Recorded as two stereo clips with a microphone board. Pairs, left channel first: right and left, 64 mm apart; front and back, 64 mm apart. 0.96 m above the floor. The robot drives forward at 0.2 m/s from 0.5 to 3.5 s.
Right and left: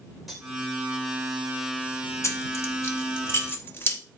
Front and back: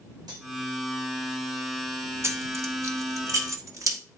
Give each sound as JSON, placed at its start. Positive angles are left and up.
{"t": 0.3, "sound": "cutlery clinking", "azimuth_deg": 180, "distance_m": 2.0}
{"t": 2.2, "sound": "keys jangling", "azimuth_deg": -135, "distance_m": 0.7}